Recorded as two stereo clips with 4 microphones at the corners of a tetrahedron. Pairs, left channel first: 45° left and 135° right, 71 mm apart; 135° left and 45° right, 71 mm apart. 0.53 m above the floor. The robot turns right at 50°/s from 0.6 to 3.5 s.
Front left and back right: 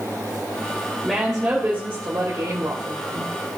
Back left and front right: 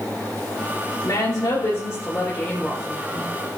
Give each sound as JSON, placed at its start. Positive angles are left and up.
{"t": 1.0, "sound": "a woman speaking", "azimuth_deg": 135, "distance_m": 2.5}